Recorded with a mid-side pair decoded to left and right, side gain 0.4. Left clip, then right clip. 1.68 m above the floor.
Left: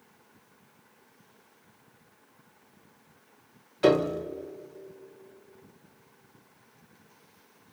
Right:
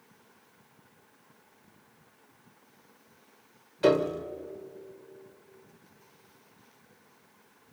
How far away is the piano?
About 1.5 m.